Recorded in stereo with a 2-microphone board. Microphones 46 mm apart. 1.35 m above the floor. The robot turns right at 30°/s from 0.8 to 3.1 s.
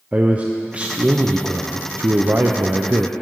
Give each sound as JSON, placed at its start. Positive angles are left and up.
{"t": 0.1, "sound": "a man speaking", "azimuth_deg": -145, "distance_m": 0.6}